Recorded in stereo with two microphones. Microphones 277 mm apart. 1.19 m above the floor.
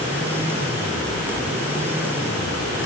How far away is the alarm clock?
No alarm clock in this recording.